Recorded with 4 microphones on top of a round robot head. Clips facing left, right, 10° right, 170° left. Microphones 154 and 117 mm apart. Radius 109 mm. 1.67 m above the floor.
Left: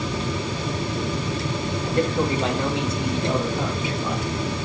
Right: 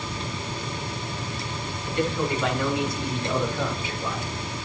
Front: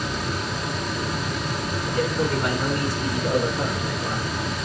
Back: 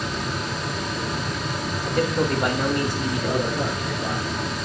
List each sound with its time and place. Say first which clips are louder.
1.8 s a man speaking: left 3 dB, back 2 dB; 140° left, 2.5 m; by 4.3 s 170° left, 4.5 m